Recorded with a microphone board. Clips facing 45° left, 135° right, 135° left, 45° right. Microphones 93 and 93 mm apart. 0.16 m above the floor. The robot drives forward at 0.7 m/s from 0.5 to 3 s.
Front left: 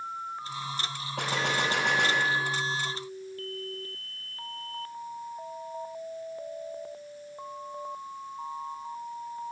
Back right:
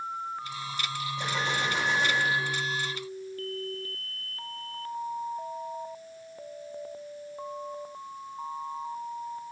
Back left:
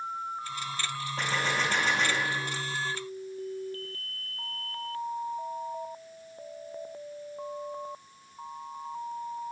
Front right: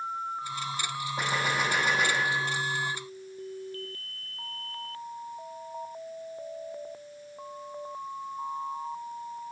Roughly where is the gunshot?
Ahead left.